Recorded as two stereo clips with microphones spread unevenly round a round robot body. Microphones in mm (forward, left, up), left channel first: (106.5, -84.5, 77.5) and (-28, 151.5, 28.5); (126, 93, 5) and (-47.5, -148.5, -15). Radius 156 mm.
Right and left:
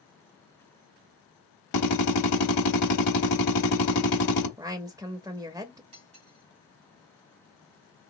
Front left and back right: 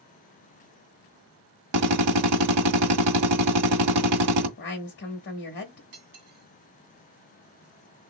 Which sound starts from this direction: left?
A woman speaking, at 4.6 s.